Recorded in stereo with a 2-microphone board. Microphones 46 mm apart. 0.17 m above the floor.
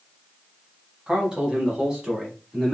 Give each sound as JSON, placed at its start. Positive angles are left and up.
{"t": 1.1, "sound": "a man speaking", "side_deg": -20, "distance_m": 1.2}